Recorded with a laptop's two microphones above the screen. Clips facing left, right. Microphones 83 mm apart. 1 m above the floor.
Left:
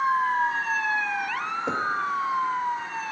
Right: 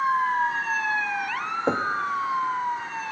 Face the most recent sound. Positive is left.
turn(degrees=-45)  # may be behind; listen again after turning